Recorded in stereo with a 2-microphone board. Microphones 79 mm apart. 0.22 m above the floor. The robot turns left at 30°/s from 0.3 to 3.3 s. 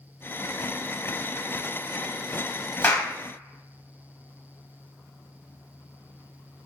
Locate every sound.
2.8 s a clap: 25° left (ahead or behind), 0.8 m